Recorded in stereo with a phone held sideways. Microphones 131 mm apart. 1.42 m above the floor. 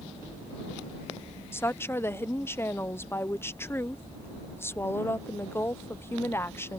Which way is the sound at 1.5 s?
20° left (ahead or behind).